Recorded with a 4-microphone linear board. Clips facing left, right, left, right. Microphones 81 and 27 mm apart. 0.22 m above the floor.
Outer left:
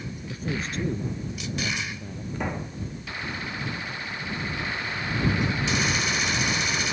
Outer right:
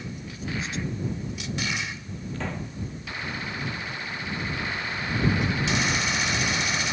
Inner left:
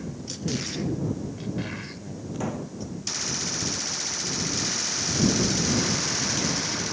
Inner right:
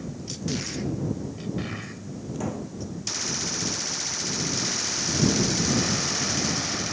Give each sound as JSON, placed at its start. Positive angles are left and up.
{"t": 0.3, "sound": "a man speaking", "side_deg": 45}
{"t": 2.3, "sound": "a pop", "side_deg": 15}